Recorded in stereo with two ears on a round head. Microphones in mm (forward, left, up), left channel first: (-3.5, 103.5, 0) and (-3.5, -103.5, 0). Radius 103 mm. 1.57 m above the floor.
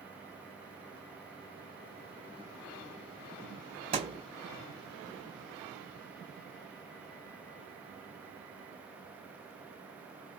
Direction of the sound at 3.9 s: 25° right (ahead or behind).